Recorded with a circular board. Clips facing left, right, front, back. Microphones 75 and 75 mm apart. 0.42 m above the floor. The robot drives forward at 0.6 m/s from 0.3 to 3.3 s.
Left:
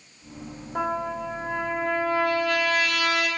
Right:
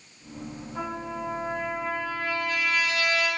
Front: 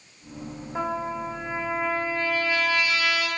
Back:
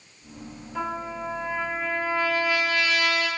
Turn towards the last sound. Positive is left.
turn(degrees=125)